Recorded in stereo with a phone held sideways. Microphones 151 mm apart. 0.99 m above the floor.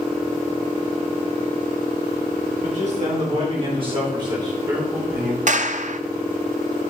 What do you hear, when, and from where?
2.6 s a man speaking: 55° right (ahead or behind), 3.5 m; by 5.4 s 15° right (ahead or behind), 4 m
5.5 s a clap: 55° right (ahead or behind), 0.6 m